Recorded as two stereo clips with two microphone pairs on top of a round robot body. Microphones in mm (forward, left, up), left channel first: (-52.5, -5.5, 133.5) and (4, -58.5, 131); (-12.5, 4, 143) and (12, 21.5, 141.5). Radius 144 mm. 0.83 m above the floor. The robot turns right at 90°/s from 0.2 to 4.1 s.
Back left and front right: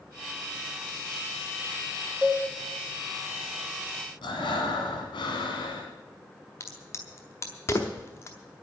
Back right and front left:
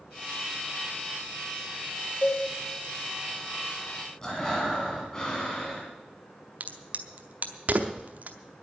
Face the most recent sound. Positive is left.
turn(degrees=80)